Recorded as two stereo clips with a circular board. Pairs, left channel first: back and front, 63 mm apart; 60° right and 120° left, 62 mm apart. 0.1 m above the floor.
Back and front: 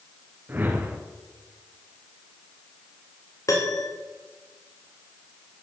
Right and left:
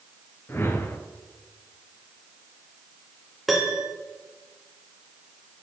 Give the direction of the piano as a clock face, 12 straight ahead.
5 o'clock.